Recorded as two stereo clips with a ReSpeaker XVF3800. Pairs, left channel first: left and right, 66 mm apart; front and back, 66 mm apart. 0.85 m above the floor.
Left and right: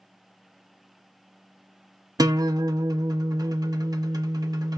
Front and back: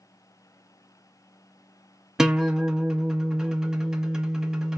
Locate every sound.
2.2 s a guitar: 100° right, 0.8 m